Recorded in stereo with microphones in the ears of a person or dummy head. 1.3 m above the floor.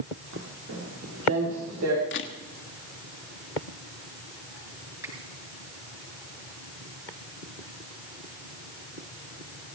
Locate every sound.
0.3 s footsteps: 75° right (ahead or behind), 5.5 m; by 2.0 s 80° right, 7 m
2.1 s a camera shutter: 60° left (ahead or behind), 1.4 m
5.0 s a finger snap: 15° right (ahead or behind), 6 m